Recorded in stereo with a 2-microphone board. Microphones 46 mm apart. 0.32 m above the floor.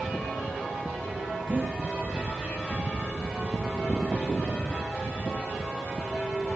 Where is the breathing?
55° right (ahead or behind), 6 m.